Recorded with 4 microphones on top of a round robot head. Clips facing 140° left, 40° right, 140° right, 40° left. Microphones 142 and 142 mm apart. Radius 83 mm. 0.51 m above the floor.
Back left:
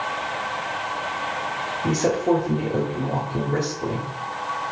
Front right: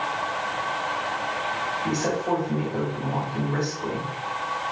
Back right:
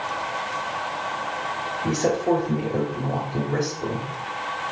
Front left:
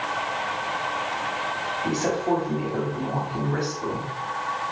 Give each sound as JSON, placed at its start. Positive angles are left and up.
{"t": 1.8, "sound": "a woman speaking", "azimuth_deg": 165, "distance_m": 1.4}